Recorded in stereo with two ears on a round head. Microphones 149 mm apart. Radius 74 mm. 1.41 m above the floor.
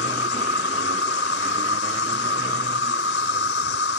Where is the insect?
80° left.